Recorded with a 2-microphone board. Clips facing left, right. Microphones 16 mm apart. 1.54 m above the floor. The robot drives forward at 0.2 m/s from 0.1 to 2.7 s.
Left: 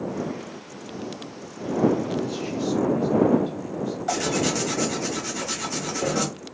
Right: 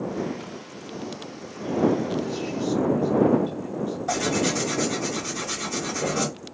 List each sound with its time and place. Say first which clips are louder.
2.0 s a man speaking: even; 70° left (ahead or behind), 1.3 m; by 4.5 s 65° left (ahead or behind), 1.4 m
4.1 s tearing paper: even; 20° left (ahead or behind), 1.4 m